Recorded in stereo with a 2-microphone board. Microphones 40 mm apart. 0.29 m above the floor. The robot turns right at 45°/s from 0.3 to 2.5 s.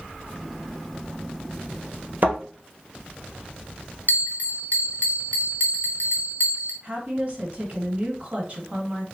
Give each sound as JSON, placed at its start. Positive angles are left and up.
{"t": 2.2, "sound": "a thud", "side_deg": -45, "distance_m": 1.8}
{"t": 4.1, "sound": "a bell", "side_deg": 50, "distance_m": 1.2}
{"t": 6.8, "sound": "a woman speaking", "side_deg": -35, "distance_m": 1.4}